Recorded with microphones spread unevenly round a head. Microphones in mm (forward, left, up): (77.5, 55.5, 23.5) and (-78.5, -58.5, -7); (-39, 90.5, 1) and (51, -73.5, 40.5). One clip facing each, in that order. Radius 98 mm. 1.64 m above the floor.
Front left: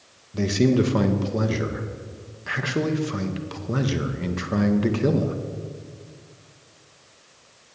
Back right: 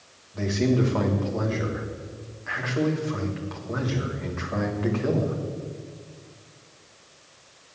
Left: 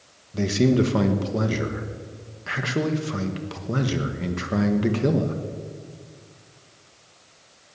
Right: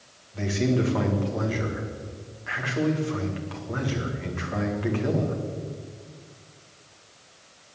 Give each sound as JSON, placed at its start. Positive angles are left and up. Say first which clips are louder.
{"t": 0.3, "sound": "a man speaking", "louder": "front left 3 dB, left 5 dB", "azimuth_deg": 75, "distance_m": 1.7}